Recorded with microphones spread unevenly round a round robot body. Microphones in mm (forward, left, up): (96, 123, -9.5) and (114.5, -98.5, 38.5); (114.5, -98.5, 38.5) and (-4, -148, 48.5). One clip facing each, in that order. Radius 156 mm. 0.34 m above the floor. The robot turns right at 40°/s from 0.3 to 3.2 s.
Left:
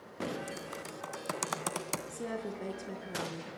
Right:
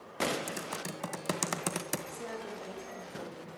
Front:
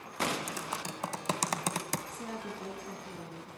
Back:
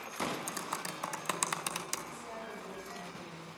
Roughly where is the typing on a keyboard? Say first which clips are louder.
Right 2 dB, front 2 dB; ahead right.